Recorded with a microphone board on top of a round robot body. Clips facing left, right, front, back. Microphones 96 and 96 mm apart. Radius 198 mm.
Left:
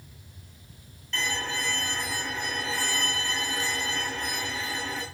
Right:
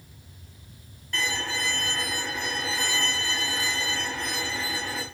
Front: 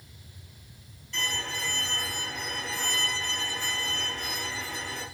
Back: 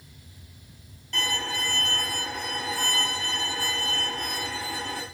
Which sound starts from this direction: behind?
A violin, at 1.1 s.